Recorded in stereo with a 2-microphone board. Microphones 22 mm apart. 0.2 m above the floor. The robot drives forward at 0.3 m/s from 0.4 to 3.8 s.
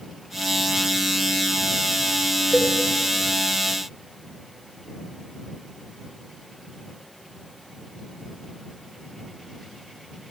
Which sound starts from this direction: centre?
A cowbell, at 2.5 s.